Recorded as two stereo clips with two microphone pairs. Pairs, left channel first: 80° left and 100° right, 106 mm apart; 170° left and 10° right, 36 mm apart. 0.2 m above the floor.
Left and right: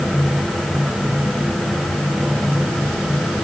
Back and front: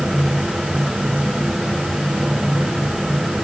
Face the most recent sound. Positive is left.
No sound to turn to.